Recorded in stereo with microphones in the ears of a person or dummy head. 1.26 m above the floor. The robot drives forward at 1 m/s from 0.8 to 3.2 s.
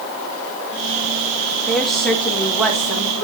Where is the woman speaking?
5° left (ahead or behind), 1.0 m; by 3.2 s centre (ahead or behind), 2.5 m.